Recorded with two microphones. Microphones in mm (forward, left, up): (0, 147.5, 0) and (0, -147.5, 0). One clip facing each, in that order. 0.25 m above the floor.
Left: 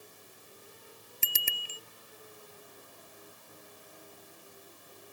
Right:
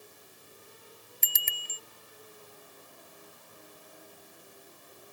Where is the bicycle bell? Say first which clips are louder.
Left 5 dB; 35° left (ahead or behind).